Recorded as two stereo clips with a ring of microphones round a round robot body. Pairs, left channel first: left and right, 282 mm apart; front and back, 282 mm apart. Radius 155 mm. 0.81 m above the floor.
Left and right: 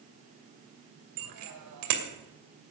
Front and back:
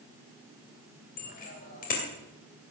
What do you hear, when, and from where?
1.2 s a bicycle bell: 65° right, 2.5 m